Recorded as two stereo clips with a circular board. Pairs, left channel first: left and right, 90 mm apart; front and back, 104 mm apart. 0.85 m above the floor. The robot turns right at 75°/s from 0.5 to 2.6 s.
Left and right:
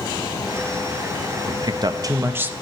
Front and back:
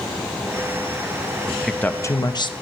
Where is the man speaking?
100° right, 0.6 m; by 2.5 s 20° right, 0.6 m.